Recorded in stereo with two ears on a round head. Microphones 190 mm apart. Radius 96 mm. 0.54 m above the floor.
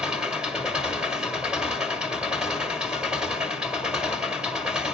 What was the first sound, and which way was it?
An engine running, 5° right (ahead or behind).